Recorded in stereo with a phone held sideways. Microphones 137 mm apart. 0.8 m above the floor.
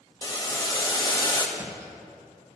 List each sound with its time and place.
0.2 s boiling: 30° left (ahead or behind), 1.0 m
1.6 s a thud: 25° right (ahead or behind), 2 m